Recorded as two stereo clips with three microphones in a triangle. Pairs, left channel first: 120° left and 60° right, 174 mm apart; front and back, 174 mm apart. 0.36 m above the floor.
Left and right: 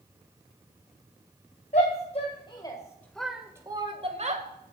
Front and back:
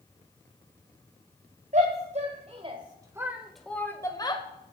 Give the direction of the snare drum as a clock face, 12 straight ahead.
I don't hear a snare drum.